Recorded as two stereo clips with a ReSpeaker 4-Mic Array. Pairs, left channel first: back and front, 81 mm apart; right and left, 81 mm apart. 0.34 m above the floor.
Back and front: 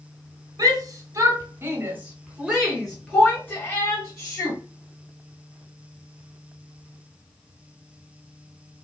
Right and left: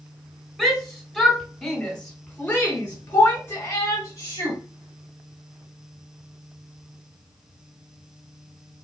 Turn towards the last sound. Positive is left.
turn(degrees=-140)